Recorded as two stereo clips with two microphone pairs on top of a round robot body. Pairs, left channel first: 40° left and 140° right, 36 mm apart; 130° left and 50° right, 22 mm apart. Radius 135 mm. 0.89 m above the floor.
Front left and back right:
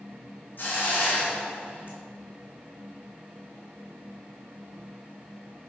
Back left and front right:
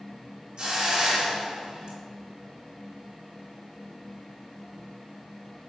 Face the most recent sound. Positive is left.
turn(degrees=0)